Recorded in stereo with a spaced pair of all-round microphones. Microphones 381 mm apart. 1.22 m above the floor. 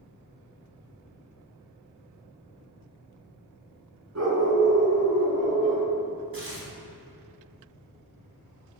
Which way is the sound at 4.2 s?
40° right (ahead or behind).